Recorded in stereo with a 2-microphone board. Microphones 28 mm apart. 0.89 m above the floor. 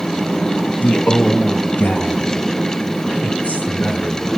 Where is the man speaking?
50° left (ahead or behind), 1.2 m; by 4.3 s 65° left (ahead or behind), 4 m.